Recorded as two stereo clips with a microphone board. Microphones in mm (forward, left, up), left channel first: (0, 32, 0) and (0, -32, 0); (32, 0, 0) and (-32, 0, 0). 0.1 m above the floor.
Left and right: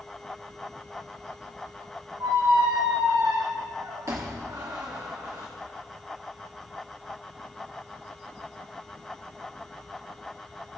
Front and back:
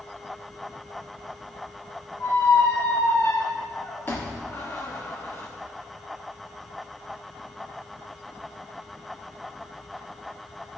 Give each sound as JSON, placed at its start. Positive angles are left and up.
{"t": 2.2, "sound": "a squeak", "azimuth_deg": -50, "distance_m": 1.8}